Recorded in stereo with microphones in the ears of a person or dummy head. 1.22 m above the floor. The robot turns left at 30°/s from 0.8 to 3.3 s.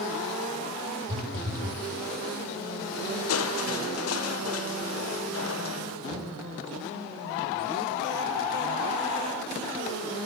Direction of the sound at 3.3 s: 80° left.